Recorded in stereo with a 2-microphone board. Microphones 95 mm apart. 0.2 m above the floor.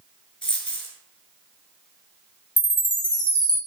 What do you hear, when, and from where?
0.4 s a dropped coin: 10° left (ahead or behind), 0.8 m
2.6 s a chime: 55° left (ahead or behind), 1.2 m